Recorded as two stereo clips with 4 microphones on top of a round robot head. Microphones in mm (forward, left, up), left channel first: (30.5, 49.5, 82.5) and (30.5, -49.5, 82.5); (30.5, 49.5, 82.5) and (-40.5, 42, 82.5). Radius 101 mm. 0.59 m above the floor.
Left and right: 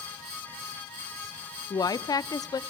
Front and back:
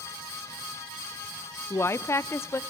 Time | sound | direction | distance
1.7 | a woman speaking | 50° left | 1.0 m